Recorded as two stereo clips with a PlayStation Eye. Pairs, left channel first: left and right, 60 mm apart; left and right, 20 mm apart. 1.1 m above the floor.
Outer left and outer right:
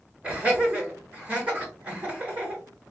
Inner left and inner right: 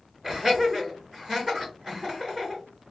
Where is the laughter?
25° right (ahead or behind), 3 m.